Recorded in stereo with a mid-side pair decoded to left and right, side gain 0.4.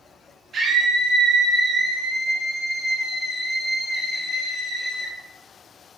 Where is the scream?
60° right, 1.5 m; by 5.1 s 30° left, 1.9 m.